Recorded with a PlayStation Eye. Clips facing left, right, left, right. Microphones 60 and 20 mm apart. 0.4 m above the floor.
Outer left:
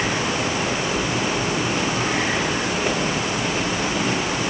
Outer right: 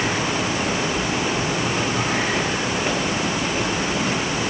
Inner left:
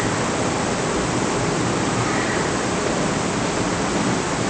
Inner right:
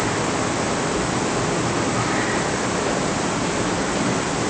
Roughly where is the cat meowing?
I don't hear a cat meowing.